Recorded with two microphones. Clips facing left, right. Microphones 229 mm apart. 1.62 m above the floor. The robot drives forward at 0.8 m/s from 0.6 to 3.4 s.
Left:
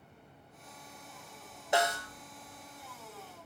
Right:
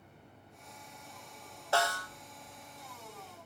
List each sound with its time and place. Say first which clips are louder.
1.7 s a snare drum: left 2 dB; 20° left (ahead or behind), 0.9 m; by 2.1 s 25° left (ahead or behind), 0.6 m